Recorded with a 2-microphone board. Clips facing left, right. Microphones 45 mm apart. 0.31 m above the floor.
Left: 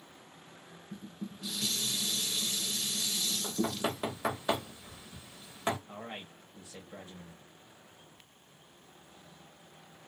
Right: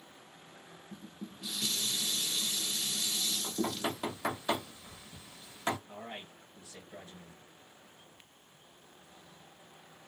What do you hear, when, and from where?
0.9 s dishes clattering: 5° right (ahead or behind), 0.5 m
3.4 s knocking: 20° left (ahead or behind), 0.9 m
5.9 s a man speaking: 30° left (ahead or behind), 1.0 m